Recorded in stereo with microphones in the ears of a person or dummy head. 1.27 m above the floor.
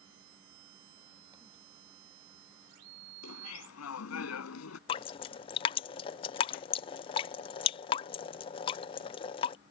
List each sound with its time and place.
3.2 s laughter: 85° left; by 4.8 s 90° left
4.9 s dripping: 30° left (ahead or behind)